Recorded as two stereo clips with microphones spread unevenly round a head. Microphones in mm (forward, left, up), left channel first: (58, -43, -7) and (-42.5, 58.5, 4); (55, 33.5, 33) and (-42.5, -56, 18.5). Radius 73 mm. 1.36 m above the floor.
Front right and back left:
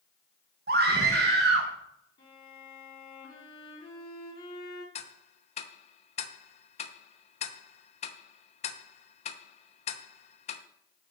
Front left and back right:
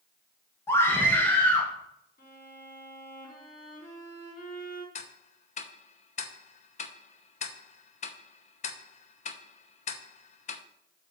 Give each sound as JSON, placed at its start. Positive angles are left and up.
{"t": 0.7, "sound": "a scream", "azimuth_deg": 115, "distance_m": 1.7}
{"t": 2.2, "sound": "a violin", "azimuth_deg": 15, "distance_m": 5.0}
{"t": 5.0, "sound": "ticking", "azimuth_deg": 5, "distance_m": 0.9}